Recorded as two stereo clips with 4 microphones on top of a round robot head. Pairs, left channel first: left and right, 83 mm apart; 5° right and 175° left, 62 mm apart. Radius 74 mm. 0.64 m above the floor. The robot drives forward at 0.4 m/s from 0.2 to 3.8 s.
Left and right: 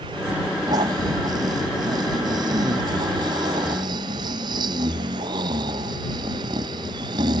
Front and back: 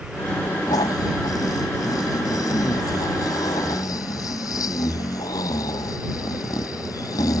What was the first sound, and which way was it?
Snoring, 40° right.